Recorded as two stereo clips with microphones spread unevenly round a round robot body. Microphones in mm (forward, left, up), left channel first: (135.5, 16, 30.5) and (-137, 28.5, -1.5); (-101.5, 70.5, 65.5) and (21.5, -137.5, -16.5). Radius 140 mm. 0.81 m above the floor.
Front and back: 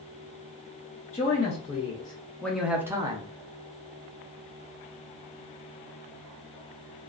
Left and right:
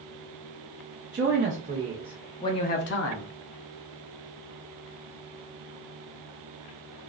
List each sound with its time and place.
1.1 s a man speaking: 70° right, 0.9 m; by 3.3 s 120° left, 0.6 m